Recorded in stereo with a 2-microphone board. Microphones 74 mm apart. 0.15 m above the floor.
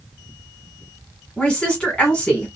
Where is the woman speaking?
15° left (ahead or behind), 1.5 m.